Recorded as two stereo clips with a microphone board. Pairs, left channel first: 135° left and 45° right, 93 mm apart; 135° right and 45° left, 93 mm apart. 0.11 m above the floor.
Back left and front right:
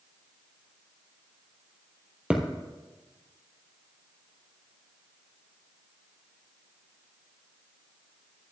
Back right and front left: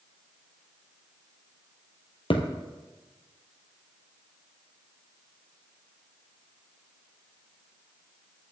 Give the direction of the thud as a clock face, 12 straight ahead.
4 o'clock.